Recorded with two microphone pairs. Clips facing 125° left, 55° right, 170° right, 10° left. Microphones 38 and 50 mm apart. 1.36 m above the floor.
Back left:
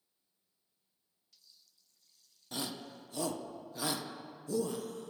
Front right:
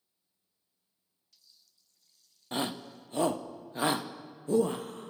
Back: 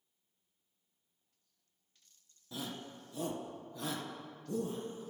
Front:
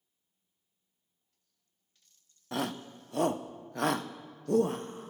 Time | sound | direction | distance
2.5 | a shout | straight ahead | 1.1 m